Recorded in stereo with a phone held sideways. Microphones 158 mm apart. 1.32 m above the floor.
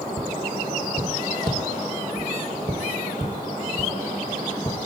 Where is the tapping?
30° right (ahead or behind), 1.0 m.